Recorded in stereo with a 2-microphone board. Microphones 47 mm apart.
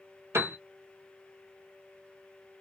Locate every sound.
0.3 s a piano: 70° right (ahead or behind), 1.0 m